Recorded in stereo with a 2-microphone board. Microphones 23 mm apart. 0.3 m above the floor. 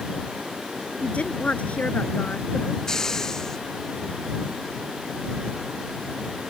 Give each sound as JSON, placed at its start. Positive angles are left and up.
{"t": 1.0, "sound": "a woman speaking", "side_deg": 70}
{"t": 2.9, "sound": "a hiss", "side_deg": 20}